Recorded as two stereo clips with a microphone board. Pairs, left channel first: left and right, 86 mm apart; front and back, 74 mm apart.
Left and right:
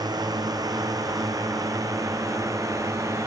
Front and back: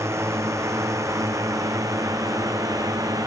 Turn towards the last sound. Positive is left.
turn(degrees=-145)